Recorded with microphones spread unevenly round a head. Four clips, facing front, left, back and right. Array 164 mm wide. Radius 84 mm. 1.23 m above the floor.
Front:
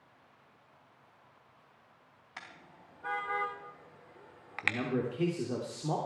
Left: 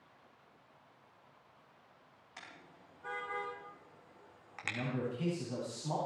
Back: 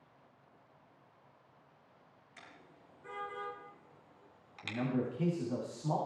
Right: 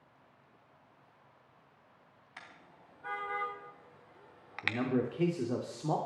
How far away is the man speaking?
About 3 m.